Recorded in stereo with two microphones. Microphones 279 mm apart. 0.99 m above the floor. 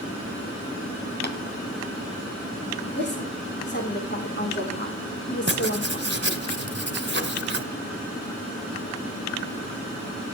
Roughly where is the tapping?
Left.